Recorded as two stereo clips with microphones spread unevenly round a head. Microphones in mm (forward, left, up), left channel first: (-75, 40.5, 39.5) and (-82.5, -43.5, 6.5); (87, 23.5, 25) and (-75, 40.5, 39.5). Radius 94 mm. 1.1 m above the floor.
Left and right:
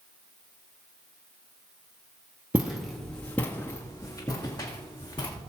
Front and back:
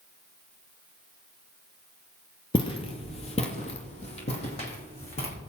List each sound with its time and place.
2.5 s footsteps: 10° left, 1.1 m; by 5.3 s 50° left, 3 m